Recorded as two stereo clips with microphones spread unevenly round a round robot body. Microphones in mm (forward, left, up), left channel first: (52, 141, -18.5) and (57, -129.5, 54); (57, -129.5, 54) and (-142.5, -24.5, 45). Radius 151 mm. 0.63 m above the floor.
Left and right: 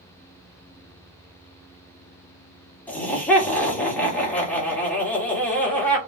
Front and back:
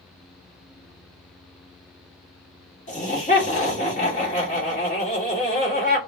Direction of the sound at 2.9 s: 25° left.